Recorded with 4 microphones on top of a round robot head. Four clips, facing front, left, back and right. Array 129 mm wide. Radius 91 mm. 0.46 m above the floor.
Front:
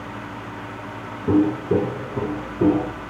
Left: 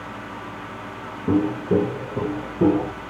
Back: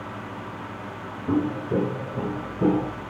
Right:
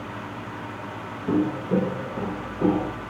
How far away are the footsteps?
About 1.5 m.